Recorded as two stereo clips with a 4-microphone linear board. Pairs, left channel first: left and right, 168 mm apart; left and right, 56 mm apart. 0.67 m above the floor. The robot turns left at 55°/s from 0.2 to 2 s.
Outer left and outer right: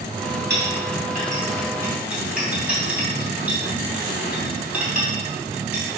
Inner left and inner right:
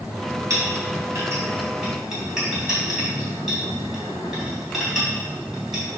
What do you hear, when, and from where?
0.5 s a clink: 85° right, 3.5 m; by 5.8 s 5° right (ahead or behind), 3.5 m